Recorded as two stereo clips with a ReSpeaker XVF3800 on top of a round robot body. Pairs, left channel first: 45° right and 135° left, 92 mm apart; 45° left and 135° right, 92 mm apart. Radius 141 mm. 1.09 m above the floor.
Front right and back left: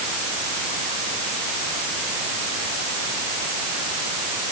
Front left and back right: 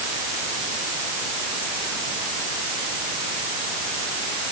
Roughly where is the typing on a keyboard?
No typing on a keyboard in this recording.